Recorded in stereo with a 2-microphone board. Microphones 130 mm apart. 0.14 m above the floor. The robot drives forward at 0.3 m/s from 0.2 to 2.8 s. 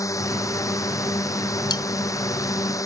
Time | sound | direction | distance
0.0 | a drone | 25° left (ahead or behind) | ?
1.7 | cutlery clinking | 35° left (ahead or behind) | ?